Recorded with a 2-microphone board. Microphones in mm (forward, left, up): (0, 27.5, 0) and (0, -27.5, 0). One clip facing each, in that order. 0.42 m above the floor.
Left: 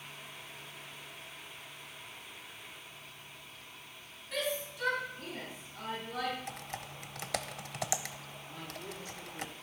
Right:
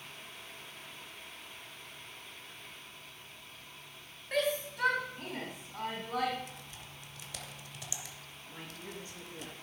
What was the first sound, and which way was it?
A shout, 45° right (ahead or behind).